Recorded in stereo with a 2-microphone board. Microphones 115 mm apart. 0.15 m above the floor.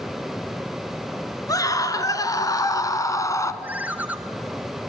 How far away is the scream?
About 1.9 m.